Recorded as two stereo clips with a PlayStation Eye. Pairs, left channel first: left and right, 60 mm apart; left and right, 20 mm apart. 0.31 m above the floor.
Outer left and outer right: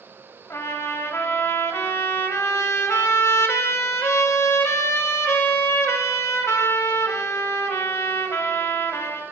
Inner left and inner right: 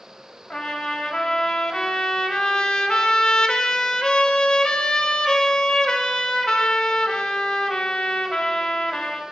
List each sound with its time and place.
0.5 s a trumpet: 50° left (ahead or behind), 0.5 m